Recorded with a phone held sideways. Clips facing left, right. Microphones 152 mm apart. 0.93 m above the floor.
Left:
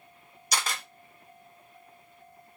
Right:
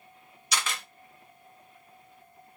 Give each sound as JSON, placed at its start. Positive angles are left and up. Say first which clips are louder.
{"t": 0.5, "sound": "a camera shutter", "louder": "left 1 dB", "side_deg": 35, "distance_m": 1.1}